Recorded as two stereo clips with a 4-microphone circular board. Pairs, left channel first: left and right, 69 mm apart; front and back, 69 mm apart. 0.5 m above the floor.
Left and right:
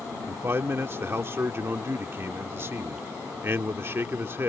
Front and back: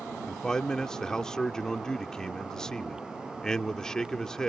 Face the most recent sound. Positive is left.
turn(degrees=-75)